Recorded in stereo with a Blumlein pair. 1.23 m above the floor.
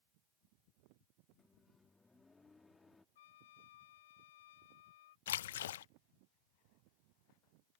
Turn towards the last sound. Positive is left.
turn(degrees=60)